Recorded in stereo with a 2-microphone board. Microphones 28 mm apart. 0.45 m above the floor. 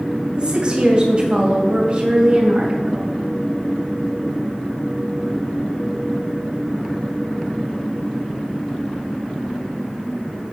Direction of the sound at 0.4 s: 35° right (ahead or behind).